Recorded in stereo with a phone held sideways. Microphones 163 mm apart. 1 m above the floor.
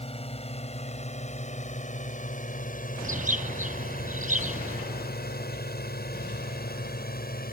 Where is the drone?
40° left (ahead or behind); by 7.5 s 65° left (ahead or behind).